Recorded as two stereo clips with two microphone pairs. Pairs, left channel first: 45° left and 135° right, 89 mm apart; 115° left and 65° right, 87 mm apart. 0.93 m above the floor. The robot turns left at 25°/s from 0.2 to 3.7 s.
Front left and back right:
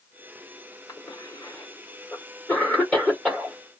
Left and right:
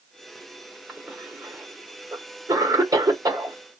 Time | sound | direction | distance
0.9 | a cough | 20° left | 1.2 m